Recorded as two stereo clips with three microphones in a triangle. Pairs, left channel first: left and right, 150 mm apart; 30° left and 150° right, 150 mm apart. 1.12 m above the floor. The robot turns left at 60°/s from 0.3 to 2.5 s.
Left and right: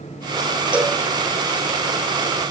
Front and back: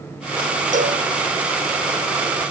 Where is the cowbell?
170° right, 1.5 m; by 1.0 s 170° left, 1.5 m.